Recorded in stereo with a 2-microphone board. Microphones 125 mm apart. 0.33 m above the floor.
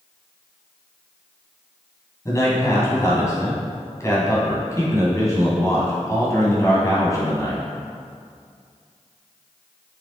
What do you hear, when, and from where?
2.2 s a man speaking: 25° left (ahead or behind), 2.5 m